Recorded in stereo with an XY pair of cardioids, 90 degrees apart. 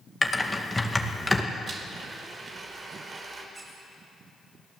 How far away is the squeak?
About 8.5 m.